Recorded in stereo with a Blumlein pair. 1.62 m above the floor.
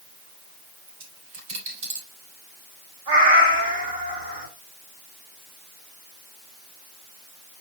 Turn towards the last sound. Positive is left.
turn(degrees=-60)